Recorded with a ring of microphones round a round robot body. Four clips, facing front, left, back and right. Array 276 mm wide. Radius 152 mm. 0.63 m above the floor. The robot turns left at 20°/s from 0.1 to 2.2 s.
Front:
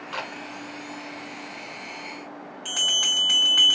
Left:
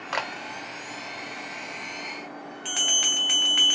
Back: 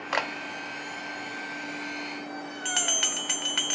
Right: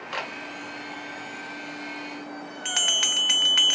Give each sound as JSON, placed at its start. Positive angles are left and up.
{"t": 0.1, "sound": "a camera shutter", "azimuth_deg": 160, "distance_m": 0.7}
{"t": 2.6, "sound": "a bell", "azimuth_deg": -120, "distance_m": 1.0}